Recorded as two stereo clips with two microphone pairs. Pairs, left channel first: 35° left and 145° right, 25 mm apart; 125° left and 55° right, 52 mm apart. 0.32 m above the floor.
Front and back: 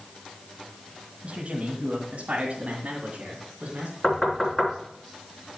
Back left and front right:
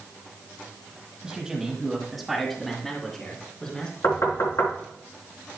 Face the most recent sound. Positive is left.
turn(degrees=115)